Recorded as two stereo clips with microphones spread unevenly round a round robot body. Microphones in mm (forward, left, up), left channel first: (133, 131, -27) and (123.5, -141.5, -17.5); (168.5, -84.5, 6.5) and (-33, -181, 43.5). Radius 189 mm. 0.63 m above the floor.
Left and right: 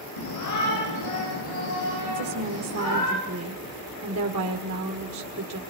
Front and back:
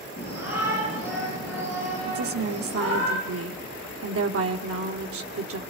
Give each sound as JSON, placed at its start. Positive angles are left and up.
{"t": 0.2, "sound": "a shout", "azimuth_deg": 85, "distance_m": 8.5}
{"t": 2.1, "sound": "a woman speaking", "azimuth_deg": -140, "distance_m": 1.5}